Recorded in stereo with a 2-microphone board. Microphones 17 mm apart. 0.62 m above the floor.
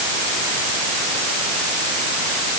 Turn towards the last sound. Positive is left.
No sound to turn to.